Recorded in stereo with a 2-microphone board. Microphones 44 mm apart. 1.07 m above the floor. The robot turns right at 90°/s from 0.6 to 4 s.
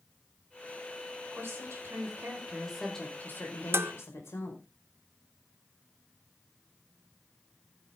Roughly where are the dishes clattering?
Right.